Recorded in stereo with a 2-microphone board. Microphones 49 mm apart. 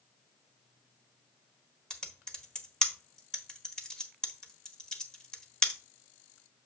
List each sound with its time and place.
1.9 s typing on a keyboard: 15° left (ahead or behind), 1.2 m